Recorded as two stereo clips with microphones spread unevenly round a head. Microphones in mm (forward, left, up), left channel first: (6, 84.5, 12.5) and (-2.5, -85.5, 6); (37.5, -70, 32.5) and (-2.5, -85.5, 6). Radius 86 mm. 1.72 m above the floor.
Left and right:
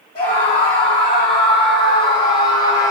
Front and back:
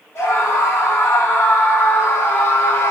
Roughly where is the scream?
Ahead left.